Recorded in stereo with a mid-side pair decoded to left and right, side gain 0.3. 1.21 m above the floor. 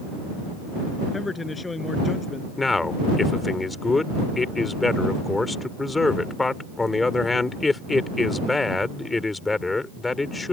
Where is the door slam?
I don't hear a door slam.